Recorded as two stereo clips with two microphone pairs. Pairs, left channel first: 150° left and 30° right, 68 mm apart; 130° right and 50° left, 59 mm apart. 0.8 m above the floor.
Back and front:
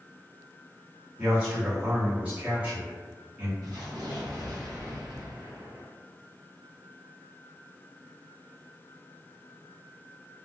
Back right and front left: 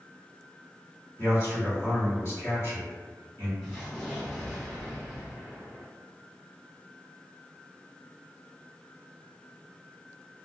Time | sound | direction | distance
1.2 | a man speaking | 100° right | 1.6 m
3.6 | an explosion | 50° right | 1.7 m